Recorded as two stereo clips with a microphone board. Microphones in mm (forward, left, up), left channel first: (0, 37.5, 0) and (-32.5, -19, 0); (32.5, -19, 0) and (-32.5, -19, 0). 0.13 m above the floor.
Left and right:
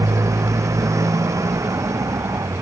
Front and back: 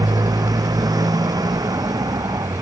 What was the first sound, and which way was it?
A motorcycle, 160° right.